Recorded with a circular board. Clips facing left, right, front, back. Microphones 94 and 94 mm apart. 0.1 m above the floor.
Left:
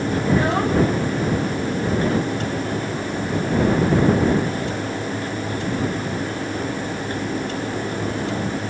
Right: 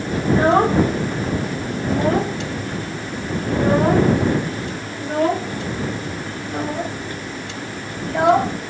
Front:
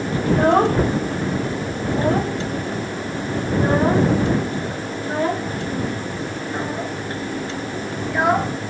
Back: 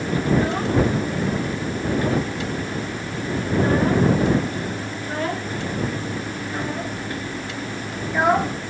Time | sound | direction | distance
0.2 | a child speaking | 35° right | ?